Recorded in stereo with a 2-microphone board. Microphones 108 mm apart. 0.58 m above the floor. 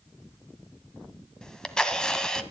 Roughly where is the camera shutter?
Centre.